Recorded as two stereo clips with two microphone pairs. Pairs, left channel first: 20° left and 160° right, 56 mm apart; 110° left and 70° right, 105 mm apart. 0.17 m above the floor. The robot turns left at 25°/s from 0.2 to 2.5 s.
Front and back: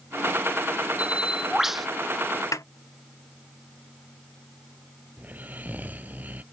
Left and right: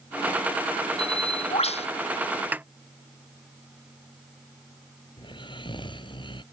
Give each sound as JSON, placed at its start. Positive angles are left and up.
{"t": 1.0, "sound": "a bird", "azimuth_deg": 130}
{"t": 2.5, "sound": "a snare drum", "azimuth_deg": 5}
{"t": 5.2, "sound": "snoring", "azimuth_deg": 140}